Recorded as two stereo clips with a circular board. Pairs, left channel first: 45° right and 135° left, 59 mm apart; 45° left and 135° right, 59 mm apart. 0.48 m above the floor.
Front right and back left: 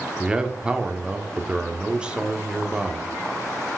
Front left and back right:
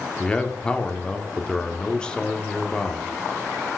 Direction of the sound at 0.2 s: 95° left.